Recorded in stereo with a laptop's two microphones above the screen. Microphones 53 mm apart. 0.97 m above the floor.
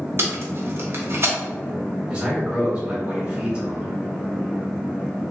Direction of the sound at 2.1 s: 30° right (ahead or behind).